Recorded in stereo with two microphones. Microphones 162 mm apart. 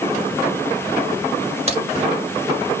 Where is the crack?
40° right (ahead or behind), 1.9 m.